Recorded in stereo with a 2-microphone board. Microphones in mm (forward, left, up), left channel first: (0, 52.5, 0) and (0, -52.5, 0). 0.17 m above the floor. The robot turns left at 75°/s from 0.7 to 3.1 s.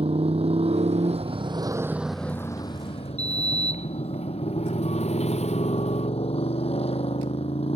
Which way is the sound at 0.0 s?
70° right.